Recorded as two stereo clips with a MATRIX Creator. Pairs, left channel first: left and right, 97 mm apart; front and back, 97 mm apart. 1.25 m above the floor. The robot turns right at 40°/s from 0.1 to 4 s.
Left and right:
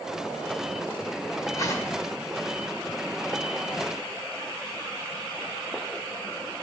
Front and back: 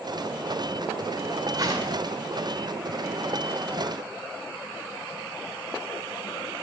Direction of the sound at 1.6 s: 135° left.